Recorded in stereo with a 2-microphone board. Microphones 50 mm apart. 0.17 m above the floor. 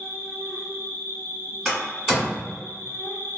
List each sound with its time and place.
0.0 s an insect: 65° left (ahead or behind), 1.1 m
1.6 s a door slam: 5° right (ahead or behind), 1.4 m